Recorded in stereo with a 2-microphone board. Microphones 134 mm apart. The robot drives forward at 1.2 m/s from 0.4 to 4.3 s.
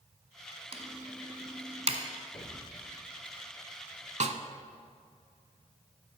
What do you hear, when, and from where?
0.7 s typing on a keyboard: 50° right (ahead or behind), 1.1 m; by 2.0 s 45° right (ahead or behind), 1.2 m
2.3 s an explosion: 35° left (ahead or behind), 1.0 m; by 3.1 s 40° left (ahead or behind), 1.0 m
4.2 s a snare drum: 60° right (ahead or behind), 0.6 m; by 4.4 s 55° right (ahead or behind), 0.7 m